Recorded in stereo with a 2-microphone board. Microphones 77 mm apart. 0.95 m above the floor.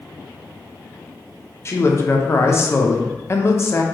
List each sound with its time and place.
1.6 s a man speaking: 35° left (ahead or behind), 0.5 m